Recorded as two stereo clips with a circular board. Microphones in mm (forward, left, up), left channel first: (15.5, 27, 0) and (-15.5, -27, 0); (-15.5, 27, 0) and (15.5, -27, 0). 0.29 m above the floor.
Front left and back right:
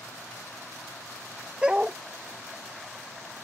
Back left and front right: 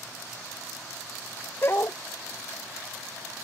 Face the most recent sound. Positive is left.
turn(degrees=165)